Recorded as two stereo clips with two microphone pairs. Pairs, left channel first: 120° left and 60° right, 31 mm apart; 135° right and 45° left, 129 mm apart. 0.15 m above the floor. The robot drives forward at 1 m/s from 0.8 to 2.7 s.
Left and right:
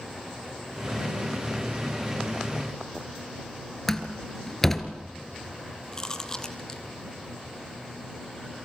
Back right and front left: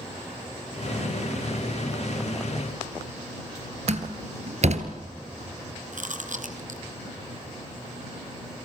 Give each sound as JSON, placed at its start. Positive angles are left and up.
{"t": 3.9, "sound": "a door slam", "azimuth_deg": 40, "distance_m": 2.0}
{"t": 5.9, "sound": "chewing", "azimuth_deg": 50, "distance_m": 1.8}